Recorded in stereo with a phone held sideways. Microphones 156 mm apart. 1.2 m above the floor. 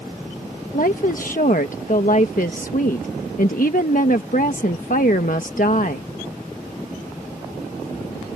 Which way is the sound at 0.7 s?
60° left (ahead or behind).